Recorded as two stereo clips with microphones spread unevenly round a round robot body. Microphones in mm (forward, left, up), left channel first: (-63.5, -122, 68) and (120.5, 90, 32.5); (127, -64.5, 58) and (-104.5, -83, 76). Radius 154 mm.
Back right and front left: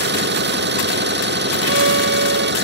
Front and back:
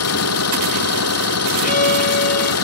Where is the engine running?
5° right.